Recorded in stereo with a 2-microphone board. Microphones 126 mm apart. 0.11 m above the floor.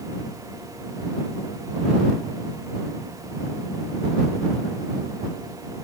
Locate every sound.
Only background noise.